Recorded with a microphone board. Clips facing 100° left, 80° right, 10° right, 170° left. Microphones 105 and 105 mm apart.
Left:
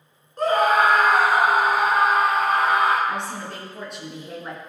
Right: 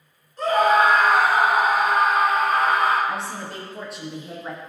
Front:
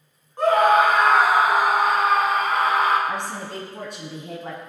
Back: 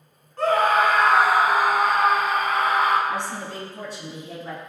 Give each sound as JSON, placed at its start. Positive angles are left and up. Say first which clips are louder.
{"t": 0.4, "sound": "a scream", "louder": "right 1 dB, front 3 dB", "azimuth_deg": 60, "distance_m": 3.5}
{"t": 3.1, "sound": "a woman speaking", "louder": "even, even", "azimuth_deg": 10, "distance_m": 3.0}